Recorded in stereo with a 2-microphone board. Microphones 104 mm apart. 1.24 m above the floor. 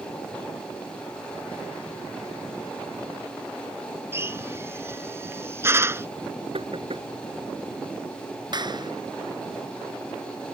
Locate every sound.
4.1 s a drill: 25° right (ahead or behind)
6.5 s knocking: 60° right (ahead or behind)
8.5 s a clap: 45° right (ahead or behind)